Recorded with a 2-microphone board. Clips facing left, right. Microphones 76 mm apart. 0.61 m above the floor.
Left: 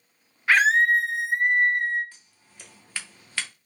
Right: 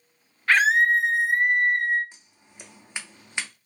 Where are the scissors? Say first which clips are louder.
Right 2 dB; 20° right (ahead or behind), 0.5 m.